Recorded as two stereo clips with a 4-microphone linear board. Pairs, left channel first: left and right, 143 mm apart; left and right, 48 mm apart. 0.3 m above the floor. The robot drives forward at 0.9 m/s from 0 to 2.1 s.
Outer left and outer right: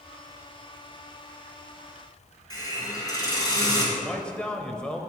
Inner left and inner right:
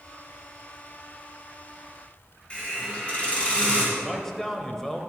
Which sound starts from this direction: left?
A hiss, at 2.5 s.